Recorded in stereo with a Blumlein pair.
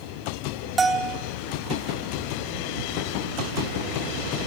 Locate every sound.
0.8 s a bell: 15° right, 0.9 m